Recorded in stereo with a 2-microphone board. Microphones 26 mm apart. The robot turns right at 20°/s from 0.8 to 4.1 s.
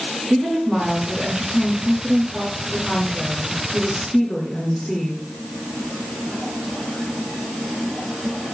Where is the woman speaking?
40° right, 6 m; by 5.2 s 25° left, 6 m.